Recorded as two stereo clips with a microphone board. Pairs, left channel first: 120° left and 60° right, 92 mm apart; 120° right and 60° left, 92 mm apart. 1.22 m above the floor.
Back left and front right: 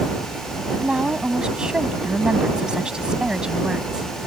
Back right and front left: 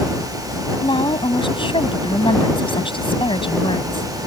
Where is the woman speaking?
140° right.